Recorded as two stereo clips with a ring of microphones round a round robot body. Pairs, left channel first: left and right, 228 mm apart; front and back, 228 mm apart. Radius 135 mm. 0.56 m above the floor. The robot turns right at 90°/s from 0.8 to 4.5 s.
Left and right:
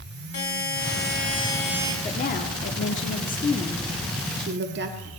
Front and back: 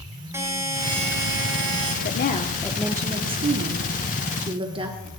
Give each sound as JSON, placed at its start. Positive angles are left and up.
{"t": 0.3, "sound": "a buzzer", "azimuth_deg": 100, "distance_m": 3.5}
{"t": 2.0, "sound": "a woman speaking", "azimuth_deg": 20, "distance_m": 1.0}